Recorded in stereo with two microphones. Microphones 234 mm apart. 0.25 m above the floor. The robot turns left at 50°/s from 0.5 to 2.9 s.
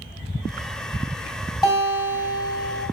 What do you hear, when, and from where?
1.6 s a guitar: 155° left, 1.8 m; by 2.8 s 95° left, 1.8 m